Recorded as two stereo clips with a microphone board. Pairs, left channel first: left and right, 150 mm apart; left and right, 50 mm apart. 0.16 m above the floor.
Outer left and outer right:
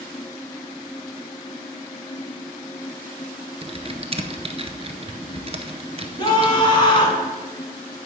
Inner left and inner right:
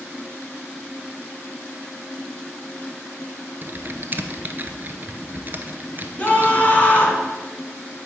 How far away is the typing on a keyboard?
About 0.7 m.